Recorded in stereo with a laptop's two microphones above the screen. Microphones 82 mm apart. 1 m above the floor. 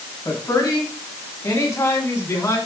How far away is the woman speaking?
About 7.5 m.